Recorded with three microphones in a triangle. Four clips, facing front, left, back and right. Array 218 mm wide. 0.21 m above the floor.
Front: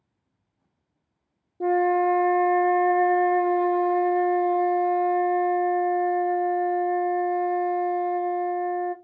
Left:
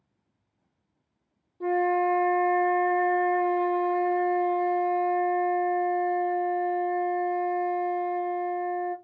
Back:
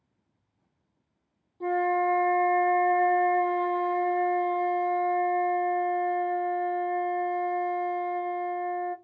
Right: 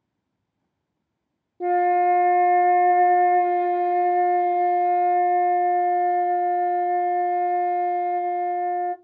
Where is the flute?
50° right, 0.8 m.